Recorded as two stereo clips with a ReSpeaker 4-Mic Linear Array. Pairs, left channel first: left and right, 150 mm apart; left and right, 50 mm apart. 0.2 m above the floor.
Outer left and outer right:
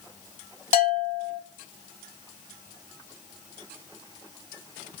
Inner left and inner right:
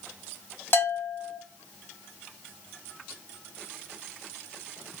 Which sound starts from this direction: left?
A bell, at 0.7 s.